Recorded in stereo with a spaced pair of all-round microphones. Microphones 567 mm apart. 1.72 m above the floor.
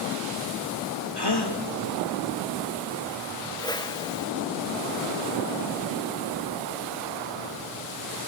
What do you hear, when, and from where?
1.2 s a gasp: 40° left (ahead or behind), 2 m
3.6 s a whoosh: 5° left (ahead or behind), 0.8 m